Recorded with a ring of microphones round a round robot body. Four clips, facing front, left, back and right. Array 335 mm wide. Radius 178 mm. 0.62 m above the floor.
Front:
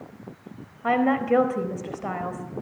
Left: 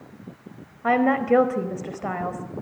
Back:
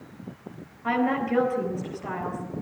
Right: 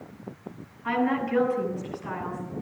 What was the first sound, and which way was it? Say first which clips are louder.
A woman speaking: left 6 dB, front 3 dB; 65° left.